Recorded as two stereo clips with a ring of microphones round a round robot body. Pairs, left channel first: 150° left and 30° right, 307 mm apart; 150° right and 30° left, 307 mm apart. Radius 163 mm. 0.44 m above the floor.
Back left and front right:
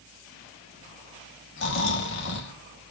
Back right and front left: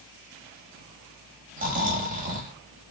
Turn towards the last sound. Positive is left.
turn(degrees=95)